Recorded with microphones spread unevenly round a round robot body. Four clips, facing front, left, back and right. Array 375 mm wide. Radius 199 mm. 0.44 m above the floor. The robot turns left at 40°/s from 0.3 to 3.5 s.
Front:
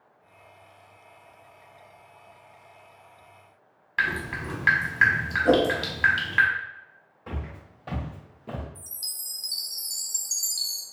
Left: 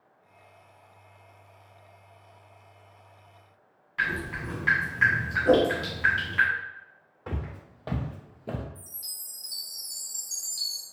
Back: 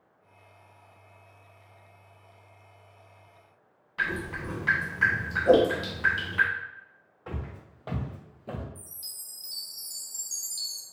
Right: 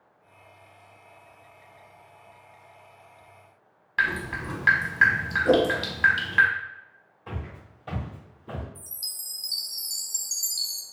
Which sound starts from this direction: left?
Footsteps, at 7.3 s.